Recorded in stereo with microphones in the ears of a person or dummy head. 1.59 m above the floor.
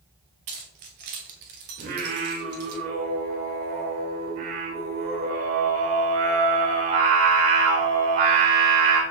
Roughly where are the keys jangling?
Right.